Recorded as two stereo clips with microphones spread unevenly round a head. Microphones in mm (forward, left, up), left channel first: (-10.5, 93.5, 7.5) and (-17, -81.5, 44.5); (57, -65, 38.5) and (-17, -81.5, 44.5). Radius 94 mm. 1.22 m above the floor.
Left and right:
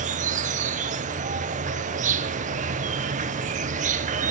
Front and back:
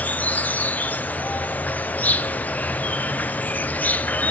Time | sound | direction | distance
0.0 | an insect | 45° right | 0.7 m